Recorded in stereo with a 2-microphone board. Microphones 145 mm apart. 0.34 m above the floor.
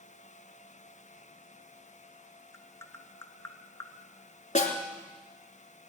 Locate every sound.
2.5 s tapping: 20° left (ahead or behind), 0.8 m
4.5 s a snare drum: 60° left (ahead or behind), 2.5 m